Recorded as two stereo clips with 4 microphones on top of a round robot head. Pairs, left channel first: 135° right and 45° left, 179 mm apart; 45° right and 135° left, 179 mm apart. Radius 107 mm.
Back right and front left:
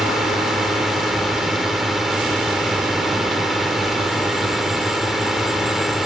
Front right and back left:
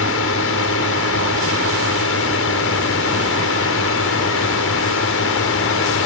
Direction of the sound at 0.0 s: 45° right.